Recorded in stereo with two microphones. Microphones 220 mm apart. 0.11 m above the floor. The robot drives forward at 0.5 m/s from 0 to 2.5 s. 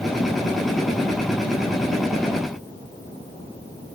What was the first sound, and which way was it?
Only background noise.